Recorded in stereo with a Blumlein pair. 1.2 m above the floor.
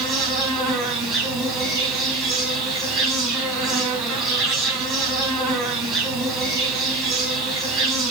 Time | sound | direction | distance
0.0 | an insect | 15° right | 3.5 m